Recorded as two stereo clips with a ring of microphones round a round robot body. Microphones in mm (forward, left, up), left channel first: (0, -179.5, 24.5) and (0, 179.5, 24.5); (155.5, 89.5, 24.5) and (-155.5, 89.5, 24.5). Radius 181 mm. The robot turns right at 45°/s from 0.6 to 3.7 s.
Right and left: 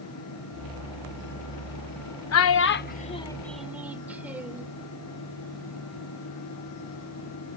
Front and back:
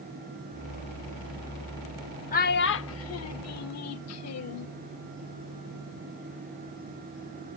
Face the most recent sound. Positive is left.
turn(degrees=5)